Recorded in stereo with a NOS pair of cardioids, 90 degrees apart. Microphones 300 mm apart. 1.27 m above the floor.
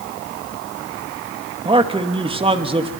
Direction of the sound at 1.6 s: 20° right.